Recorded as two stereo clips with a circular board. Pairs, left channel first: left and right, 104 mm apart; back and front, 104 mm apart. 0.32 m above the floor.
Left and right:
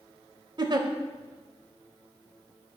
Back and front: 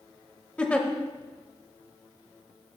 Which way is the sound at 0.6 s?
105° right.